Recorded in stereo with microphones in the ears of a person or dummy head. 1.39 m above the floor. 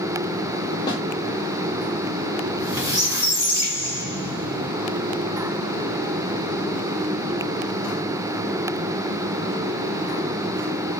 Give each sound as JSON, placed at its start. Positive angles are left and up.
{"t": 0.9, "sound": "a snare drum", "side_deg": 25, "distance_m": 1.2}
{"t": 2.5, "sound": "a squeak", "side_deg": -15, "distance_m": 3.0}